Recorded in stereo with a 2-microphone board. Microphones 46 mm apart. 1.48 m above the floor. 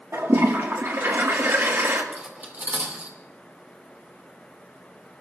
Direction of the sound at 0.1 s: 65° right (ahead or behind).